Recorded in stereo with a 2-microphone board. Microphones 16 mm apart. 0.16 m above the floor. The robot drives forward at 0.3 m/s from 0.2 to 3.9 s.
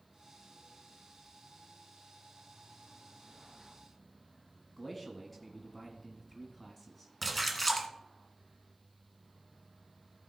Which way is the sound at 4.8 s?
10° left (ahead or behind).